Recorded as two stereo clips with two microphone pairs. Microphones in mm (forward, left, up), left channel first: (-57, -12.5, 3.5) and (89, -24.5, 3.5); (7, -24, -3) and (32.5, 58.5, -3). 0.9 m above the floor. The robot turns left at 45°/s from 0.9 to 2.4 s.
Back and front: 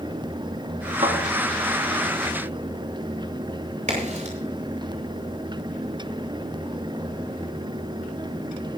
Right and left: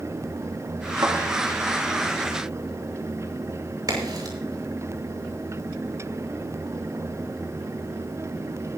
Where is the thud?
30° left, 4.5 m; by 1.2 s 25° left, 4.5 m.